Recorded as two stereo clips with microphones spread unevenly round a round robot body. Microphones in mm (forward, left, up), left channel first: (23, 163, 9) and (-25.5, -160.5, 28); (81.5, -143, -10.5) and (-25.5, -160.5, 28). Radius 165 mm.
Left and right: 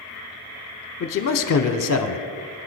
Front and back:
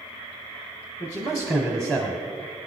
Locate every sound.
1.0 s a man speaking: 95° left, 0.9 m